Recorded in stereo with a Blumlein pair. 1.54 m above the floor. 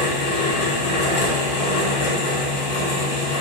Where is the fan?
50° left, 1.2 m.